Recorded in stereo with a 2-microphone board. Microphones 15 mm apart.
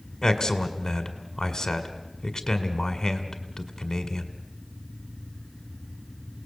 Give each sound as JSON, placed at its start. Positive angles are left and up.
{"t": 0.2, "sound": "a man speaking", "side_deg": 45, "distance_m": 1.9}